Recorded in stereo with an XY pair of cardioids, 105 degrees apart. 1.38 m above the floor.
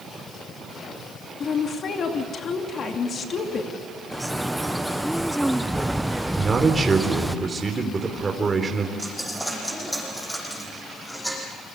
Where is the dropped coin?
5° left, 9 m.